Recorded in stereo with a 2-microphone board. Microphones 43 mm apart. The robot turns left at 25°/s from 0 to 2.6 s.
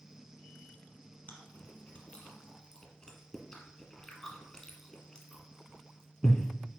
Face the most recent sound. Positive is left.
turn(degrees=25)  # may be behind; listen again after turning